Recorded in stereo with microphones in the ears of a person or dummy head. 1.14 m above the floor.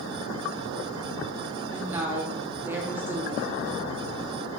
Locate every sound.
1.7 s a woman speaking: 15° right (ahead or behind), 0.8 m